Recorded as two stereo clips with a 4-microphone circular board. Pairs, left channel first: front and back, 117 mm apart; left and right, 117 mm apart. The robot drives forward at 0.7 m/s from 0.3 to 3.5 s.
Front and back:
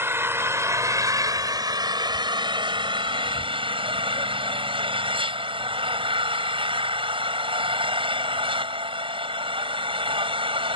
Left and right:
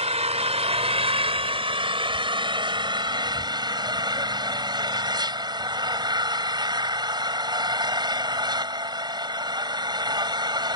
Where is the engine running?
110° right; by 10.8 s 140° right.